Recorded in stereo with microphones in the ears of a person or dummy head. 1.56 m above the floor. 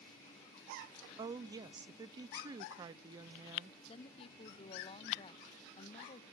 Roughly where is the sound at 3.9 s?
Left.